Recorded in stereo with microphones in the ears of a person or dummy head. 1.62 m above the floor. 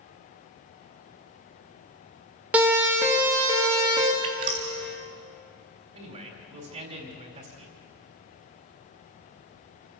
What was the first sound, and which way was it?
A siren, 10° right (ahead or behind).